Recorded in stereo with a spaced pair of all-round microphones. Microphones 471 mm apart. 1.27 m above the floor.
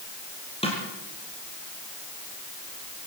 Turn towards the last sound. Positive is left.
turn(degrees=10)  # may be behind; listen again after turning